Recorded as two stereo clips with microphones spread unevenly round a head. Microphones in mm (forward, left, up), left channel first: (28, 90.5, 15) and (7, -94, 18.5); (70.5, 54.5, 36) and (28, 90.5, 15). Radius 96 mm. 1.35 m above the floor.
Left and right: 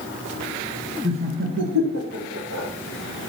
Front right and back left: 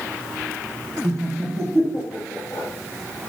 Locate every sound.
1.0 s laughter: 165° right, 1.4 m; by 2.7 s 85° right, 2 m